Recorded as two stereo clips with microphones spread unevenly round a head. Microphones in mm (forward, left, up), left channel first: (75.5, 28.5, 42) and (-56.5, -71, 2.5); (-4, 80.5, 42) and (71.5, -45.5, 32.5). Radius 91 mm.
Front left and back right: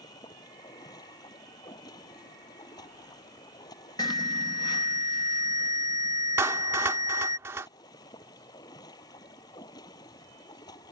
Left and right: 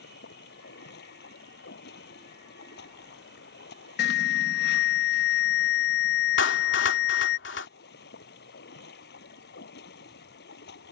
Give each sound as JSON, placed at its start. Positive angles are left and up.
{"t": 0.0, "sound": "running water", "azimuth_deg": 110}
{"t": 4.0, "sound": "an alarm", "azimuth_deg": 110}
{"t": 6.4, "sound": "a clap", "azimuth_deg": 135}